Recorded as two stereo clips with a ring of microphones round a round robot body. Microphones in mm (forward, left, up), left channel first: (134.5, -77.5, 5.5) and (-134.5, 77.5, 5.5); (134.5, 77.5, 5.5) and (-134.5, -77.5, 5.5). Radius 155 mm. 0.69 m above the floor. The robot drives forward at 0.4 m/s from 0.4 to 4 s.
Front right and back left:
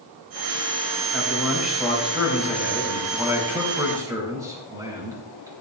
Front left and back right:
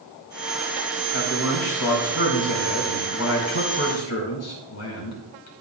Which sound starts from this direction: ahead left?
A man speaking, at 1.1 s.